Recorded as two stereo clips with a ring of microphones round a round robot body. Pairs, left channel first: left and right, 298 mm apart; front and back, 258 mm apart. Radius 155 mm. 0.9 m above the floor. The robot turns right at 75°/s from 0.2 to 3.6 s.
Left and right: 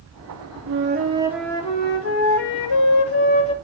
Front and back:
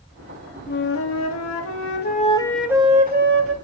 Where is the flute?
55° right, 2 m; by 3.5 s 160° left, 2 m.